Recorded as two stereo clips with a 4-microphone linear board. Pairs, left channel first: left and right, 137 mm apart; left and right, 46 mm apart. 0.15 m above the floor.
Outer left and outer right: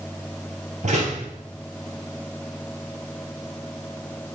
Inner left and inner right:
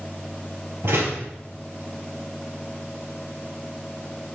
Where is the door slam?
55° right (ahead or behind), 2.0 m.